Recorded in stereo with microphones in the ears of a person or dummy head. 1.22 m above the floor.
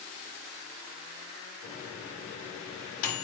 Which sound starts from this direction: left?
A microwave, at 1.6 s.